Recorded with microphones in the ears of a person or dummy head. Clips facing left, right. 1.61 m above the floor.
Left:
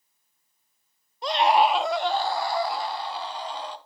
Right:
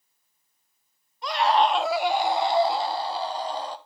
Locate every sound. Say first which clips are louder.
1.2 s a scream: left 1 dB; 30° left (ahead or behind), 0.7 m; by 3.8 s 35° right (ahead or behind), 2.0 m